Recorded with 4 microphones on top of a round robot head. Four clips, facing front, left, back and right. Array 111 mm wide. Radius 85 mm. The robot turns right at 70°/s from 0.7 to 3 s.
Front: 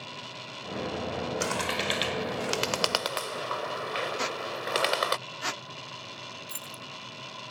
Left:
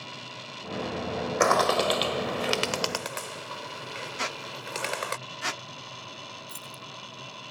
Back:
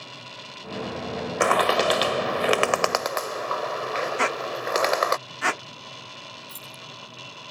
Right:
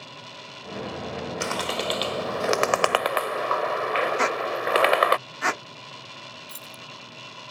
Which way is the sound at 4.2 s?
135° right.